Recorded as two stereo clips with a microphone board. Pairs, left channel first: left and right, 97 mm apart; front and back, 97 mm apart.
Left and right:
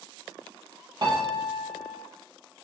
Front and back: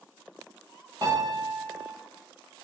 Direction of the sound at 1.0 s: 130° right.